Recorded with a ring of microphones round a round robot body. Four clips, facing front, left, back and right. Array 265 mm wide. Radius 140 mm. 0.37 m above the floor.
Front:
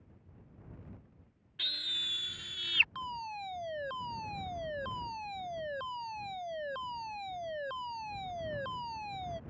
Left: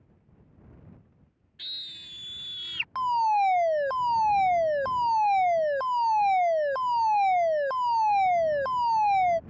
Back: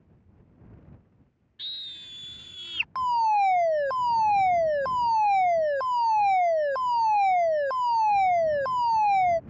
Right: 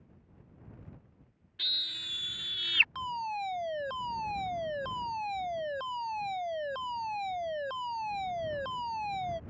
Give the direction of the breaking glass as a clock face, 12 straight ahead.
I don't hear breaking glass.